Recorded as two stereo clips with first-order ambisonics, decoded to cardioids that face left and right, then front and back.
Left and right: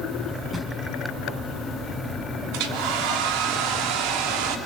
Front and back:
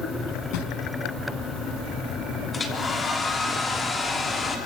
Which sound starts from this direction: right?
A hair dryer, at 2.5 s.